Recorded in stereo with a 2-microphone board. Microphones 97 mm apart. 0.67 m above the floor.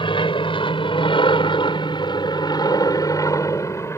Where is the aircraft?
60° left (ahead or behind); by 4.0 s 25° left (ahead or behind).